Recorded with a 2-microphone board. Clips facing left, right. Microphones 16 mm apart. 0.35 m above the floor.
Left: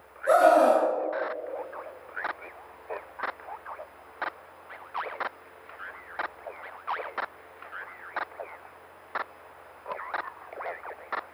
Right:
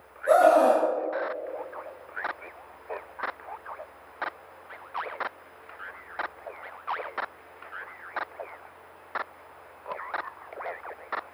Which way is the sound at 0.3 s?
Centre (ahead or behind).